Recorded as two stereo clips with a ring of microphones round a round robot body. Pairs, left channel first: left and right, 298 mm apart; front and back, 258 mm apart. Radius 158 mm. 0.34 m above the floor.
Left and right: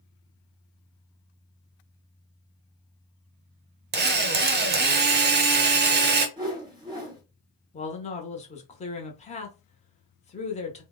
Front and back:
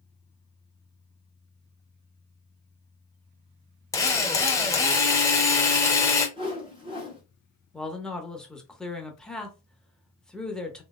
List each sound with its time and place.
3.9 s a drill: 70° right, 0.7 m
6.4 s a whoosh: 145° right, 1.6 m
7.7 s a man speaking: 85° left, 0.9 m